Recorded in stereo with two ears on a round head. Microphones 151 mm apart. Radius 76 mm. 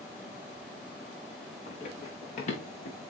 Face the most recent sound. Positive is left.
turn(degrees=50)  # may be behind; listen again after turning